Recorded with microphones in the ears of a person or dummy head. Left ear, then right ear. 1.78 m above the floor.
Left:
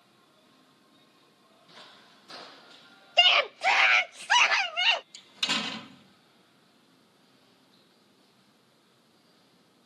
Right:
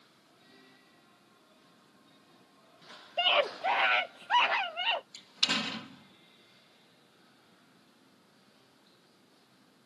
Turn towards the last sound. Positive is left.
turn(degrees=10)  # may be behind; listen again after turning